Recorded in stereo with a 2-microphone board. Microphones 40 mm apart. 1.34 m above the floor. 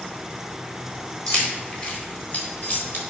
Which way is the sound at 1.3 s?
30° left (ahead or behind).